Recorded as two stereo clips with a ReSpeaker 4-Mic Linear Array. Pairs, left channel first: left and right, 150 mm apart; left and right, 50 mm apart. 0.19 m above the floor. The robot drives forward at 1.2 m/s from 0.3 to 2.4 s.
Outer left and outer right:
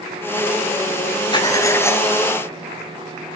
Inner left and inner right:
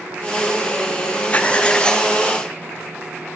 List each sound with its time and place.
1.3 s writing: 30° left (ahead or behind), 0.7 m; by 2.1 s 15° left (ahead or behind), 1.5 m